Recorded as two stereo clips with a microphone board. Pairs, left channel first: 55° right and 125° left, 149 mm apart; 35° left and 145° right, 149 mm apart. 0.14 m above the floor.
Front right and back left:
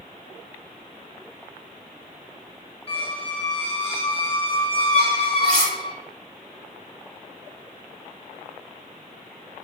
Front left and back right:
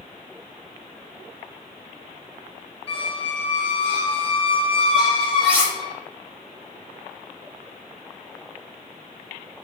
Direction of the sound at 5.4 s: 140° left.